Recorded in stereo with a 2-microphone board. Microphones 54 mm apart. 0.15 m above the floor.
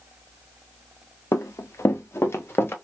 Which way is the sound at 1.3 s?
70° left (ahead or behind).